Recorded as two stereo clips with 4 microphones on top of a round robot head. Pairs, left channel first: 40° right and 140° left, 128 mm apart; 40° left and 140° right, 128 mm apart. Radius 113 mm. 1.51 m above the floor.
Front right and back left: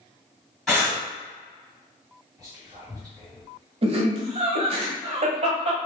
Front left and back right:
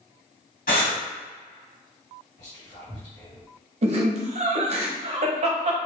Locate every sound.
0.7 s breathing: 40° left, 1.8 m
2.4 s whispering: 75° left, 1.6 m
3.8 s laughter: straight behind, 0.8 m